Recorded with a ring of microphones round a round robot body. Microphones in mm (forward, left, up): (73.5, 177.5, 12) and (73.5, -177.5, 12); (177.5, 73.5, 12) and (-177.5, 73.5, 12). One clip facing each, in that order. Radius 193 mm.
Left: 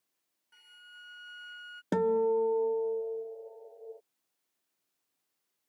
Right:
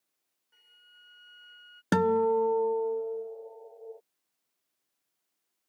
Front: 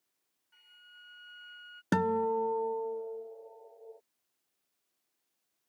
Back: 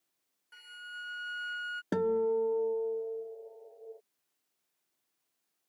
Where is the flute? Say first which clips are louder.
Left 5 dB, back 14 dB; 160° left.